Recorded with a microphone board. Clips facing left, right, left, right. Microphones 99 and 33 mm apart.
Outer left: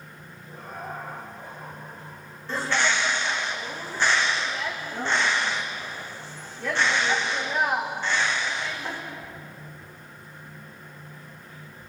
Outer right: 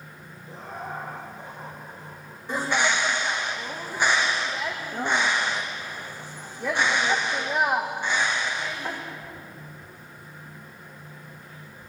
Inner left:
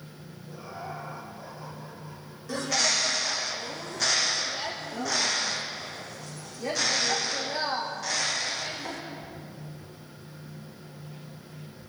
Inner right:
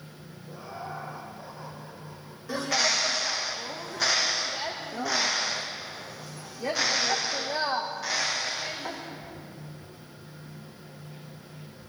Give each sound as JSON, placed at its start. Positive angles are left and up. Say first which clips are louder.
{"t": 0.5, "sound": "laughter", "louder": "outer right 1 dB, even", "side_deg": -25, "distance_m": 6.0}
{"t": 2.5, "sound": "a bird", "louder": "outer right 1 dB, inner right 1 dB", "side_deg": -15, "distance_m": 3.0}